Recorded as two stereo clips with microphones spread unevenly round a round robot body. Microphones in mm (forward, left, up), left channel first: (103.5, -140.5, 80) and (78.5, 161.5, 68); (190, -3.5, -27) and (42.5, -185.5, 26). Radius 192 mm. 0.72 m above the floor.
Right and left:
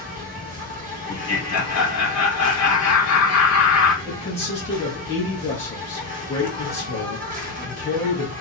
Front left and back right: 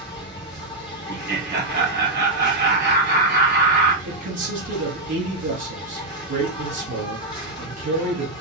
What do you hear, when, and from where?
0.0 s an insect: 65° left, 1.0 m
1.1 s laughter: 85° right, 1.3 m
4.0 s a man speaking: 155° right, 1.0 m